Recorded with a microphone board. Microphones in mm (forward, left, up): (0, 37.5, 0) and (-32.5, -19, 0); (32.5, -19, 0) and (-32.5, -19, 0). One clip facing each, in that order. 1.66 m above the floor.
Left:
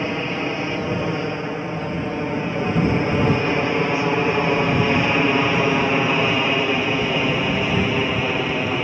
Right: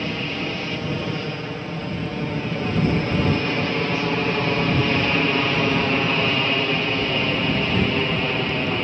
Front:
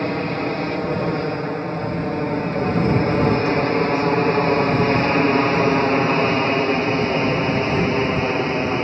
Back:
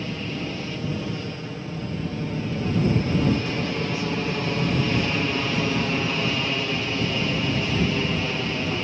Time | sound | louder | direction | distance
0.0 | an aircraft | left 3 dB, front 8 dB | 5° right | ?